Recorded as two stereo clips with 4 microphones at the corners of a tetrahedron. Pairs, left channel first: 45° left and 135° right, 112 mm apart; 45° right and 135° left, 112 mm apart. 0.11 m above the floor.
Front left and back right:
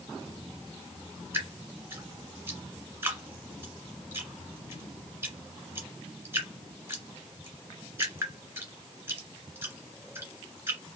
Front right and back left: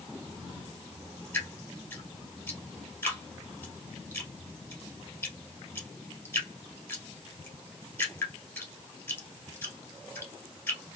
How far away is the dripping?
About 1.6 m.